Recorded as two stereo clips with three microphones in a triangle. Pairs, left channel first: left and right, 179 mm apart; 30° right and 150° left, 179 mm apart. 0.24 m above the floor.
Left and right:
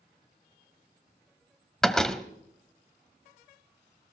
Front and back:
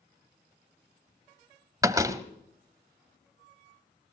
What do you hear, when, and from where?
1.8 s a door slam: 170° left, 1.1 m